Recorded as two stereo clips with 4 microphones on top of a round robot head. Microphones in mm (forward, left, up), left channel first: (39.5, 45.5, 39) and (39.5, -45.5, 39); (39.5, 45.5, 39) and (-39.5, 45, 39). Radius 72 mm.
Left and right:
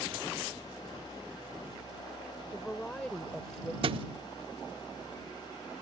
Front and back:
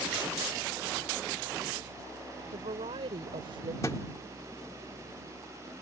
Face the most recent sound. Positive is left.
turn(degrees=-70)